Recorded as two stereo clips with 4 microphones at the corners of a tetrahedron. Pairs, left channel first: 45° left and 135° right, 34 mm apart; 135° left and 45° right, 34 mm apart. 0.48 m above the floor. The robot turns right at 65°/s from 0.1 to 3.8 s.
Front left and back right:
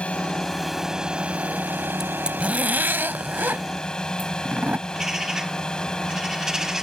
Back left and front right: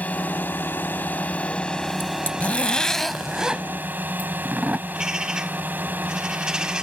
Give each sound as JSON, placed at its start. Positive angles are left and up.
{"t": 0.0, "sound": "a drone", "azimuth_deg": 95}
{"t": 2.0, "sound": "a zipper", "azimuth_deg": 145}
{"t": 4.9, "sound": "a bird", "azimuth_deg": -80}